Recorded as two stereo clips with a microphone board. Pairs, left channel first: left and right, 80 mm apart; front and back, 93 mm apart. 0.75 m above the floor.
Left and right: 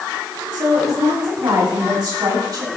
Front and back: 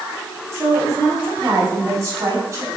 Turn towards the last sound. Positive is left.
turn(degrees=-120)